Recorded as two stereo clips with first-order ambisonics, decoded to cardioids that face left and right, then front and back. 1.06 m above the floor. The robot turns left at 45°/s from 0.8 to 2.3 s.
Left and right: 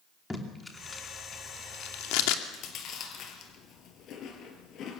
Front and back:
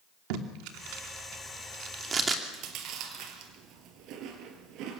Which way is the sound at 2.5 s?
140° left.